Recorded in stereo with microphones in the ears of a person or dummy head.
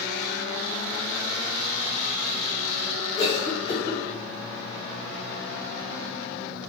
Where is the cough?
55° left (ahead or behind), 1.4 m.